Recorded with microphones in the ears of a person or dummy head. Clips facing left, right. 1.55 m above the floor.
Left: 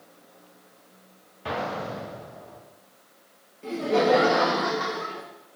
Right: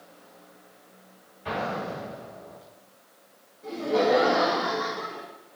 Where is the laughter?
45° left (ahead or behind), 0.5 m.